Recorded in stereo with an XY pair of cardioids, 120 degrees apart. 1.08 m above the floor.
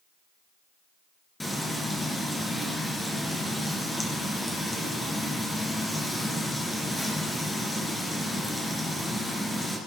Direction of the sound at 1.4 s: 10° left.